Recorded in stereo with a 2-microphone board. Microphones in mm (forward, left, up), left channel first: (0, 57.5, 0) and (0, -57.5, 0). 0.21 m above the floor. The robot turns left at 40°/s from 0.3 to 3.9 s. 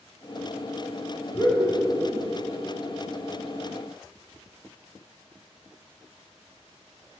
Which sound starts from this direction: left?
Laughter, at 1.3 s.